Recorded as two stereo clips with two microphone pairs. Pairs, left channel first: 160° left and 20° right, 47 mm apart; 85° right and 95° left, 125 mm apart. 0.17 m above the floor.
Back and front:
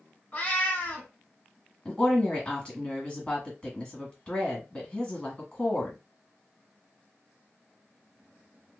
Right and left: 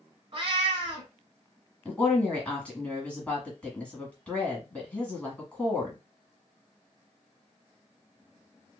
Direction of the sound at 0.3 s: 115° left.